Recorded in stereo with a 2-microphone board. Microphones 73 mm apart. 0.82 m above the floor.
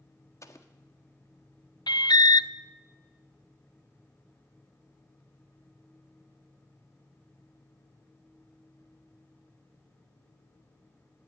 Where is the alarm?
75° left (ahead or behind), 0.5 m.